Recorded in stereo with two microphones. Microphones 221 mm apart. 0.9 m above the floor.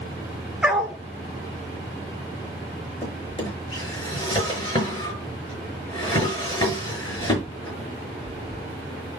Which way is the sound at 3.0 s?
20° left (ahead or behind).